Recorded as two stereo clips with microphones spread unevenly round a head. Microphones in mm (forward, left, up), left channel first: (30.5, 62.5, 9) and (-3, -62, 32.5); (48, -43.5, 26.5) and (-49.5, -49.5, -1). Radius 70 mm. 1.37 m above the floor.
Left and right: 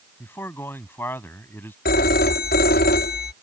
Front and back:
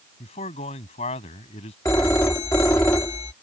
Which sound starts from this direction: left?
A phone ringing, at 1.9 s.